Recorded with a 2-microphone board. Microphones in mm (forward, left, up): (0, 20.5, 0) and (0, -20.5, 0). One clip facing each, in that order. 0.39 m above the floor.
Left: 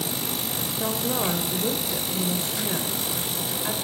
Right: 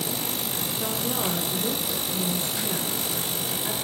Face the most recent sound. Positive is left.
turn(degrees=20)  # may be behind; listen again after turning